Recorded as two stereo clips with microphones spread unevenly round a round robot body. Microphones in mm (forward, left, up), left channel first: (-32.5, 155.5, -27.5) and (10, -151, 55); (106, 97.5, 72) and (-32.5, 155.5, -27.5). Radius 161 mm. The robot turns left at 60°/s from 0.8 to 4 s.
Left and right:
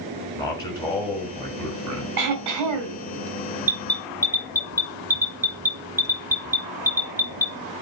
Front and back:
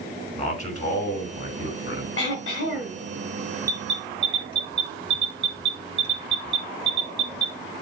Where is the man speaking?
20° left, 4.5 m; by 2.1 s 55° right, 4.5 m.